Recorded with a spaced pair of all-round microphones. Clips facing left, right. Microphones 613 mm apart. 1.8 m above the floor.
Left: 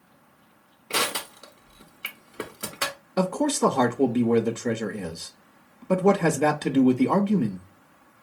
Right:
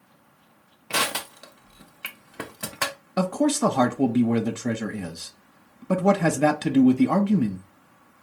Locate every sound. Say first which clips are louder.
0.9 s crushing: left 1 dB; 20° right (ahead or behind), 0.6 m
3.2 s a man speaking: right 1 dB; 10° right (ahead or behind), 0.6 m